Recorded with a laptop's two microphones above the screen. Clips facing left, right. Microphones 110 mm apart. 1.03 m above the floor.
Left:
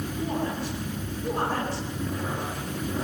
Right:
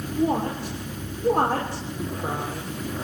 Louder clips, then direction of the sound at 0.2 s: Right 7 dB; 60° right (ahead or behind).